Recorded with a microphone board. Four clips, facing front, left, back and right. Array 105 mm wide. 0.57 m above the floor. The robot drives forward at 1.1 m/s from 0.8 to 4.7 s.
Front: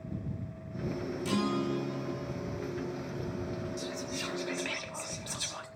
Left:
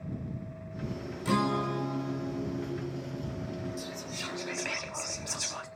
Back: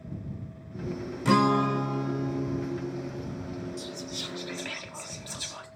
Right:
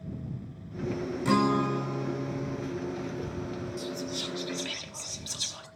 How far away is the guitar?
About 1.4 m.